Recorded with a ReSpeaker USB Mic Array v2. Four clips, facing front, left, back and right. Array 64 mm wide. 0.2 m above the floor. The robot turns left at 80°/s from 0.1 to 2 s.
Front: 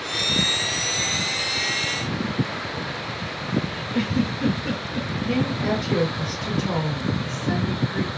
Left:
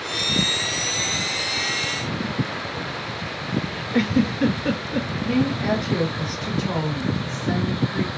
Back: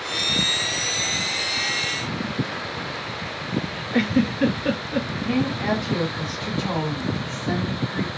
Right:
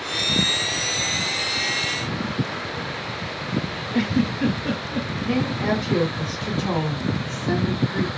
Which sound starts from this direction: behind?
A giggle, at 3.9 s.